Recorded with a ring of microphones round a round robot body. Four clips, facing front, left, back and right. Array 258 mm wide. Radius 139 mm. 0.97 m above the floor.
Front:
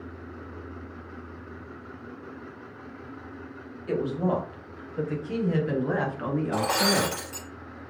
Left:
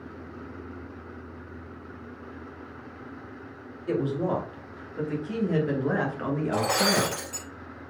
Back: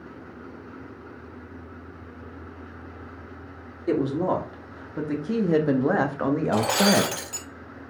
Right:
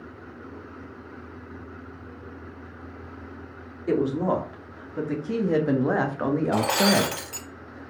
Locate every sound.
3.9 s a woman speaking: 145° right, 3 m; by 7.2 s 155° right, 1.4 m
6.5 s breaking glass: 130° right, 4 m